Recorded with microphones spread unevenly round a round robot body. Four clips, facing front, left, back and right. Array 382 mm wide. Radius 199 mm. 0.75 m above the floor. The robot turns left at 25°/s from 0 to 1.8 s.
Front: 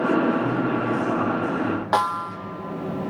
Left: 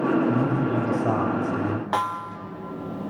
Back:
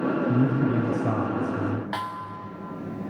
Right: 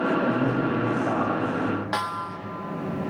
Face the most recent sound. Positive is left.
turn(degrees=10)